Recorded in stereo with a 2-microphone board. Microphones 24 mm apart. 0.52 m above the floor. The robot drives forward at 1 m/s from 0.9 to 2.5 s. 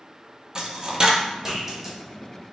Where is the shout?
No shout in this recording.